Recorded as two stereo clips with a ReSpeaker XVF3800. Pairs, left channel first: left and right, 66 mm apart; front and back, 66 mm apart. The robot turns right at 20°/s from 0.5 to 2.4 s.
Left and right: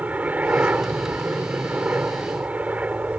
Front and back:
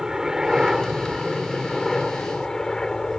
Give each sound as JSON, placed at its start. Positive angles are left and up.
{"t": 0.0, "sound": "a helicopter", "azimuth_deg": -105}